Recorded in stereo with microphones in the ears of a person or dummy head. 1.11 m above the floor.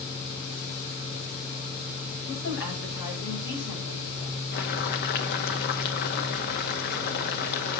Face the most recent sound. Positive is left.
turn(degrees=55)  # may be behind; listen again after turning